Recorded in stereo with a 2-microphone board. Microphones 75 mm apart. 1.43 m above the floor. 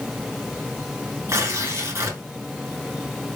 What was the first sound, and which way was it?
Tearing paper, 35° right (ahead or behind).